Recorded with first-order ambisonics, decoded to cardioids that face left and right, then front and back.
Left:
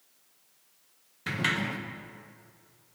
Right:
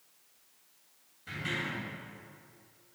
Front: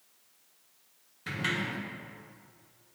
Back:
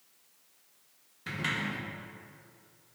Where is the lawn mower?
No lawn mower in this recording.